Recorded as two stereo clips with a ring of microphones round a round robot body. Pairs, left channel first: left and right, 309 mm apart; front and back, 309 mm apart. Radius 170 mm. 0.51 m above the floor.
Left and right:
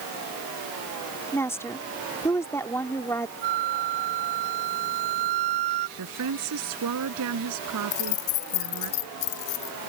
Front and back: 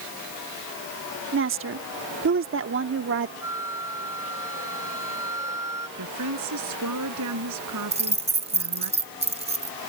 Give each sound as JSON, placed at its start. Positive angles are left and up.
{"t": 1.3, "sound": "a woman speaking", "azimuth_deg": 170}
{"t": 3.4, "sound": "a flute", "azimuth_deg": -100}
{"t": 6.0, "sound": "a woman speaking", "azimuth_deg": -135}
{"t": 7.9, "sound": "keys jangling", "azimuth_deg": 110}